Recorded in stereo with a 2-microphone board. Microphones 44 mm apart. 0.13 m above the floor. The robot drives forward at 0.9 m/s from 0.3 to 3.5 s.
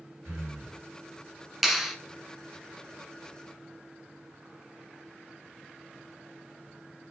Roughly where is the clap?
Centre.